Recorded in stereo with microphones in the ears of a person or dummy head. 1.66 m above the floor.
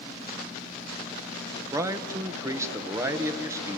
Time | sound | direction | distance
1.7 | a man speaking | 15° right (ahead or behind) | 1.8 m